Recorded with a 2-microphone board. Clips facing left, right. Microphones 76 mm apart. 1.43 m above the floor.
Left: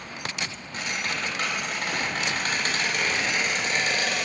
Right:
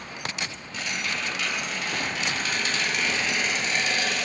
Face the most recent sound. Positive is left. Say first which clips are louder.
# left 1 dB
turn(degrees=45)  # may be behind; listen again after turning